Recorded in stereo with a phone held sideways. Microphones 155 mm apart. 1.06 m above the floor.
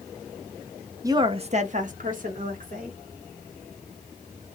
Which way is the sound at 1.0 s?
20° right (ahead or behind).